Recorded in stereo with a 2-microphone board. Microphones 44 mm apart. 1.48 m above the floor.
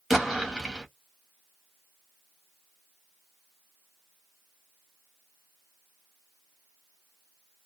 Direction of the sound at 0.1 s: 10° right (ahead or behind).